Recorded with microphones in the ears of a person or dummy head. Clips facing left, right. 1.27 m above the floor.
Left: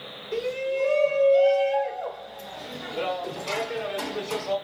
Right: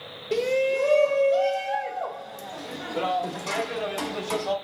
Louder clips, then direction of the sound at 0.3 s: Right 4 dB; 70° right (ahead or behind).